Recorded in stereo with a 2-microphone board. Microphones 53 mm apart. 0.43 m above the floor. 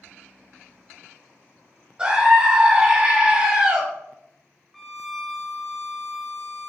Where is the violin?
Centre (ahead or behind), 0.5 m.